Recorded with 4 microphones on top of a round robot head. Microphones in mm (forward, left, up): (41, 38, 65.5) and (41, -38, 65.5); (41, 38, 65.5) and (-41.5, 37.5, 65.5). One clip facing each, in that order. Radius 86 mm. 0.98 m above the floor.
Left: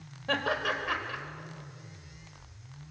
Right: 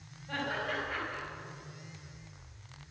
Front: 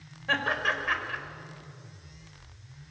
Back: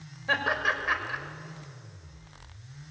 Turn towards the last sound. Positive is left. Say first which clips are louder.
# left 5 dB, back 1 dB
turn(degrees=100)